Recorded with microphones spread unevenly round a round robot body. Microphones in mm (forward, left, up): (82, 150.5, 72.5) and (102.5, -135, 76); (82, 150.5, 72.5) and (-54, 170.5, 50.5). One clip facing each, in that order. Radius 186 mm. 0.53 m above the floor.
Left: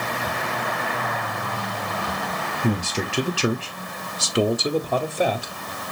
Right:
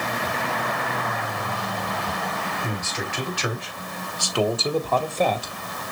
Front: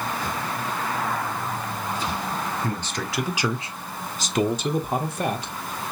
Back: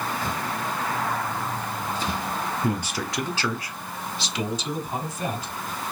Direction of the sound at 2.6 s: 120° left.